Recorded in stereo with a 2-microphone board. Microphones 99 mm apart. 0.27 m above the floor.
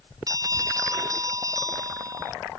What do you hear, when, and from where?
0.3 s a bell: 35° right (ahead or behind)